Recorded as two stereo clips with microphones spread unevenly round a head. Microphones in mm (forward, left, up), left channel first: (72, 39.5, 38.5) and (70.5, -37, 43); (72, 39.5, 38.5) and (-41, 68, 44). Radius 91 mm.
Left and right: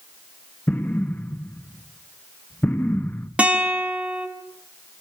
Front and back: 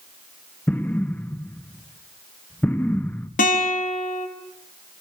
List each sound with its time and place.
0.7 s an explosion: 50° left, 1.1 m
3.4 s a guitar: 20° right, 3.5 m